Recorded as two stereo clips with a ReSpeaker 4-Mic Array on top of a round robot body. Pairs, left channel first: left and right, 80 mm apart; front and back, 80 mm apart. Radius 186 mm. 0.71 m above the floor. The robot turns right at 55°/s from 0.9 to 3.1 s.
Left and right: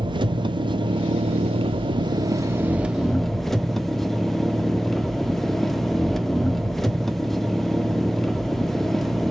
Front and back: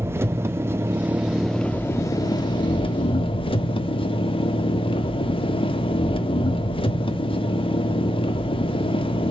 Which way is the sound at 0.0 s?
120° right.